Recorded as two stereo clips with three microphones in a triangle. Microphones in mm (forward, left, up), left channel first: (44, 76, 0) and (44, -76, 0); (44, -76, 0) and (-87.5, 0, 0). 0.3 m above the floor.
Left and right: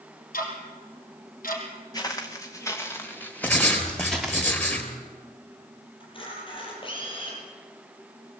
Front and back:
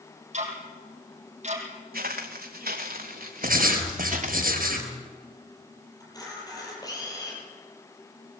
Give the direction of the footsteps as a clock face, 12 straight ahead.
7 o'clock.